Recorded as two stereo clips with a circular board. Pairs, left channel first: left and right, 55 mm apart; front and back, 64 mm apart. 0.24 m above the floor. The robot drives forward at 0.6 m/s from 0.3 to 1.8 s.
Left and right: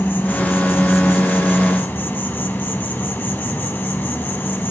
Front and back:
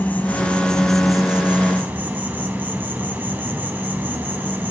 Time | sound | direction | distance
0.0 | an insect | 55° left | 1.0 m